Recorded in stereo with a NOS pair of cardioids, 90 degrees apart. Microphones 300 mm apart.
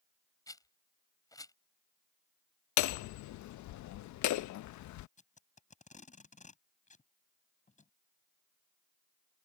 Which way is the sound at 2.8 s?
70° left.